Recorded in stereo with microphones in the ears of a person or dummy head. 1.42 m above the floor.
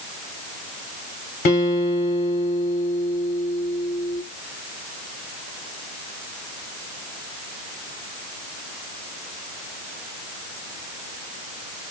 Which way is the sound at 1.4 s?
45° left (ahead or behind).